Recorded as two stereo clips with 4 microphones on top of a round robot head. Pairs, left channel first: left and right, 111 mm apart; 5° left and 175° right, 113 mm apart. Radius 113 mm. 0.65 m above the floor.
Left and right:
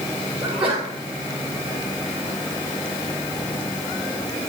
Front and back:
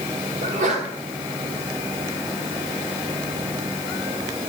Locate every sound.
0.4 s a sneeze: 170° right, 3 m